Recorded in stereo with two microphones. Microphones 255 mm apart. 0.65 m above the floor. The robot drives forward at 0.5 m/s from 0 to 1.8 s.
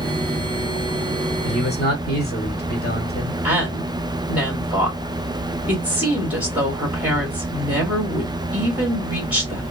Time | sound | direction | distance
1.4 | a man speaking | 40° left (ahead or behind) | 1.6 m
3.4 | a woman speaking | 5° right (ahead or behind) | 1.5 m